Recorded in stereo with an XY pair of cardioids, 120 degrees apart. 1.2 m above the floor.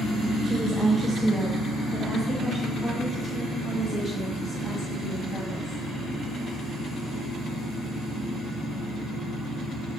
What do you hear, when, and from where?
0.4 s a woman speaking: 30° right, 0.8 m; by 5.8 s 30° left, 5 m